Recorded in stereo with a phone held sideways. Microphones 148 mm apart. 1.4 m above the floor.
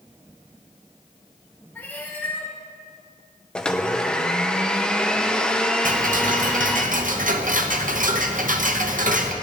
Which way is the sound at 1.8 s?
15° left (ahead or behind).